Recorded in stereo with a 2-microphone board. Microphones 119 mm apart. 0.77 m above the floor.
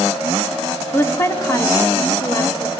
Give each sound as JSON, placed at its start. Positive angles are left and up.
{"t": 0.9, "sound": "a woman speaking", "side_deg": 20, "distance_m": 0.9}